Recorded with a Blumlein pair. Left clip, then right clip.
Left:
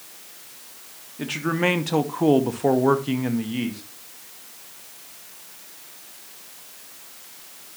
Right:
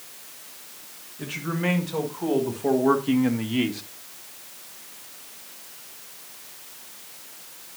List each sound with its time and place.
1.2 s a man speaking: 60° left, 1.8 m; by 3.8 s 20° right, 1.2 m